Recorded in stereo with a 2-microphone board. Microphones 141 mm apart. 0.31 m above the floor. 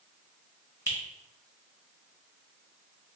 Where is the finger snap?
15° right (ahead or behind), 1.0 m.